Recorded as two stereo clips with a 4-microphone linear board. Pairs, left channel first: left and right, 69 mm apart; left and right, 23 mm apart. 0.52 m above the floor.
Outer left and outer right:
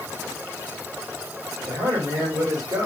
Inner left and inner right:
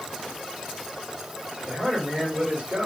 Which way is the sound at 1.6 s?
65° right (ahead or behind).